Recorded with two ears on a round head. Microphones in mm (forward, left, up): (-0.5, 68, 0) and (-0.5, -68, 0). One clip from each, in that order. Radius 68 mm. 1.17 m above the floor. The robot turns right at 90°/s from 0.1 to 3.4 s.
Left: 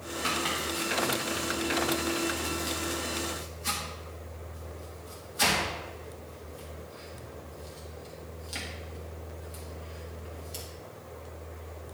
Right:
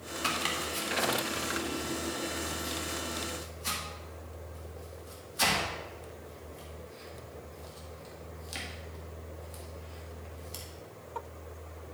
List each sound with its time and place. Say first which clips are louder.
0.2 s chopping: left 1 dB; 85° right, 2.0 m; by 10.7 s 10° right (ahead or behind), 2.0 m